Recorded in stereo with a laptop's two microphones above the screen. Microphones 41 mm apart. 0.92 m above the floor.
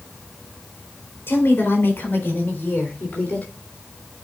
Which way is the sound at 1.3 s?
65° left (ahead or behind).